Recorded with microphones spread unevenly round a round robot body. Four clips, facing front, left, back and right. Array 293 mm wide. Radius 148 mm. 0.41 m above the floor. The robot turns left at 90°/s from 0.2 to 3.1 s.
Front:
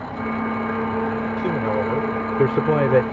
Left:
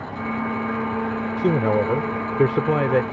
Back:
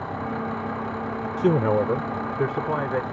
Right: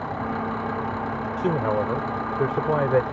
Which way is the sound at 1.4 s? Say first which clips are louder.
Left 4 dB, back 5 dB; 155° left.